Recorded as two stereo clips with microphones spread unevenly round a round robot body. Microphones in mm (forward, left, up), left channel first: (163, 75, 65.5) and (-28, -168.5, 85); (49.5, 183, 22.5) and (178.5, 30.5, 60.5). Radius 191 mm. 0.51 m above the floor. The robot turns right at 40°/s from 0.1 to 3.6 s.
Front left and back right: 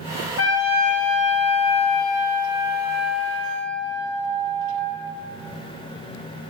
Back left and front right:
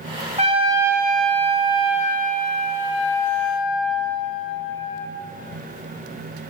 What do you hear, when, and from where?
0.4 s a trumpet: 10° left, 3.5 m; by 5.1 s 135° left, 3.5 m